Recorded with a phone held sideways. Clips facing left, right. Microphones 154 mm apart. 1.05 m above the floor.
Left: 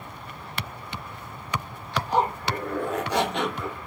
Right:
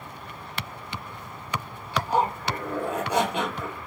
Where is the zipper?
10° right (ahead or behind), 4 m.